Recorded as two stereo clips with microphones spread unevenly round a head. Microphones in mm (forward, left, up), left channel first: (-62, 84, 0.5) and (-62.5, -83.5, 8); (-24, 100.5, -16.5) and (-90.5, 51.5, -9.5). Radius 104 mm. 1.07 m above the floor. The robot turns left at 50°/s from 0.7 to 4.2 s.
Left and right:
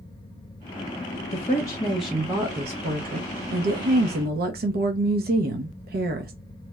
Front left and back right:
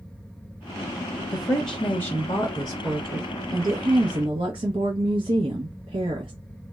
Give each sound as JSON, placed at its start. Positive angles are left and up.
{"t": 1.3, "sound": "a woman speaking", "azimuth_deg": 35, "distance_m": 0.8}